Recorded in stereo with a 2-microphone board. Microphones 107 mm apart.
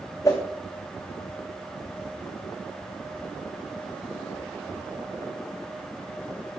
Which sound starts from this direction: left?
A whoosh, at 0.2 s.